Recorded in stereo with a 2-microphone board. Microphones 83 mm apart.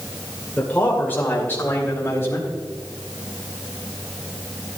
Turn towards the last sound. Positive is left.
turn(degrees=30)  # may be behind; listen again after turning